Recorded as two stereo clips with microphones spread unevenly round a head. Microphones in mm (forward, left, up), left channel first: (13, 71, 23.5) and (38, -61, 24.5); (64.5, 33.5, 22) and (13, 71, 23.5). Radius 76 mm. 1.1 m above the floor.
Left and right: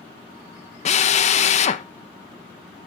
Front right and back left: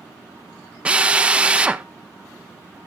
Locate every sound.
0.8 s a drill: 70° left, 1.2 m